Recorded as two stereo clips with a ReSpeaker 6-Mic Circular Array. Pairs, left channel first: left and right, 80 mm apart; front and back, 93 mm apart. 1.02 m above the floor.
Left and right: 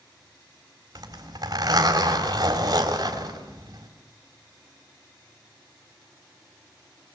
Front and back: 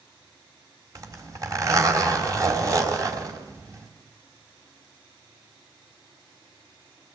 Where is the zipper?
130° right, 3.5 m.